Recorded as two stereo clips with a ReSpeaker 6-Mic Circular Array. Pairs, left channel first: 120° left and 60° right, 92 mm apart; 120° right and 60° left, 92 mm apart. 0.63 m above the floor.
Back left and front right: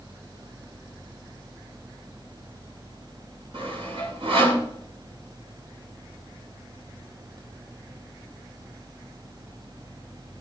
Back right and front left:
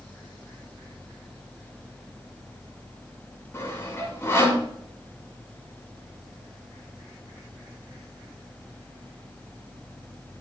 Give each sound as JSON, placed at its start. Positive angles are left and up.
{"t": 3.5, "sound": "sawing", "azimuth_deg": -55, "distance_m": 5.5}